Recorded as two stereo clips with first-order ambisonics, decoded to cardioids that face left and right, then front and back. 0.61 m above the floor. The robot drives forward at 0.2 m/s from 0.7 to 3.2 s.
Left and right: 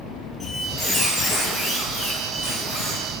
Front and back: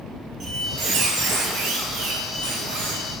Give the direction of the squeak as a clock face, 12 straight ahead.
7 o'clock.